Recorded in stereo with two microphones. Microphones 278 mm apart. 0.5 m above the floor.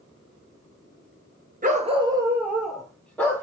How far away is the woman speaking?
I don't hear a woman speaking.